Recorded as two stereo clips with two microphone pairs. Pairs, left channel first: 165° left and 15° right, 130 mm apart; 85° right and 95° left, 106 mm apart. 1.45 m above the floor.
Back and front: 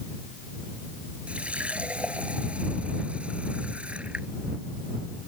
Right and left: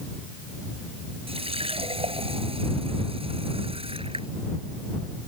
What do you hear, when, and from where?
1.3 s a running tap: 65° left